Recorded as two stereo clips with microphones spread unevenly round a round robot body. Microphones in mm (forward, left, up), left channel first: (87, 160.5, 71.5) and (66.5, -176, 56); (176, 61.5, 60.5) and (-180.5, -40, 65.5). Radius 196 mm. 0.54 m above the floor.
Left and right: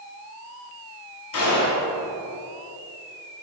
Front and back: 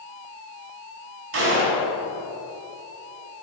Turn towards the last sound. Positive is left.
turn(degrees=140)